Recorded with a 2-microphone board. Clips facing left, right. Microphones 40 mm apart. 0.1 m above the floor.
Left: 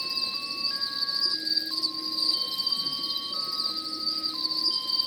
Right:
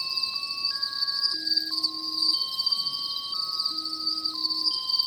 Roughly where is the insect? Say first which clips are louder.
Even; left.